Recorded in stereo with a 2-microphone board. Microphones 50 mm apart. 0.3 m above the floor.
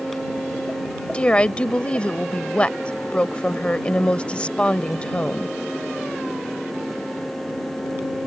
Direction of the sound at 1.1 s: 25° left (ahead or behind).